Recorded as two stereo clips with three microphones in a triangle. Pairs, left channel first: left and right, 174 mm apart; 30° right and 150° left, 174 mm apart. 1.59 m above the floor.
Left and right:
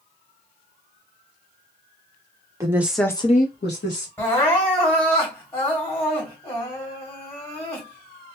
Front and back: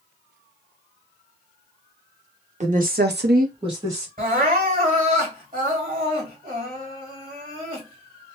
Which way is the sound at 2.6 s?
160° right.